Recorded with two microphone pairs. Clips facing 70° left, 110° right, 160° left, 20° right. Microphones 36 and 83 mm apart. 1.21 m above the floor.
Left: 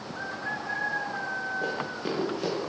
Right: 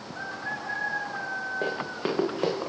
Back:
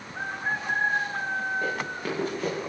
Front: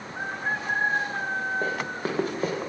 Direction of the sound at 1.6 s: 70° right.